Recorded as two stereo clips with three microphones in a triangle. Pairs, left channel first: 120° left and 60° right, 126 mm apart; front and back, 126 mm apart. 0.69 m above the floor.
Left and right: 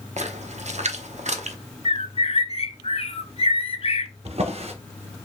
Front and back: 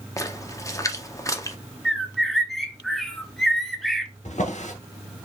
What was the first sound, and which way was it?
A splash, 65° right.